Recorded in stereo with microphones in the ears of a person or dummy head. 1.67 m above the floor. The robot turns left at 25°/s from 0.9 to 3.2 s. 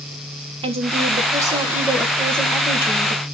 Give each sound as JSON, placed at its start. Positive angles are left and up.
{"t": 0.6, "sound": "a woman speaking", "azimuth_deg": -150, "distance_m": 1.8}